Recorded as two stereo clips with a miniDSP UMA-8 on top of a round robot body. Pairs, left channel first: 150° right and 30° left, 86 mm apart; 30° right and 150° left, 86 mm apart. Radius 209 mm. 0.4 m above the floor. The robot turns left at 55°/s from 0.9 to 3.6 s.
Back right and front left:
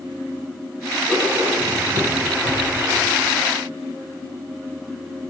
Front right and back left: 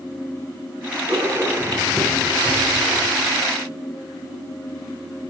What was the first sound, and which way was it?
Writing, 115° left.